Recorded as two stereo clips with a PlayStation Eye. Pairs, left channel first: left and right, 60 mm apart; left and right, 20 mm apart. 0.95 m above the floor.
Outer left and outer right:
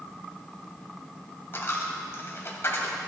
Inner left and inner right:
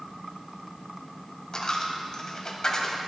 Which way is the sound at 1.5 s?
40° left (ahead or behind).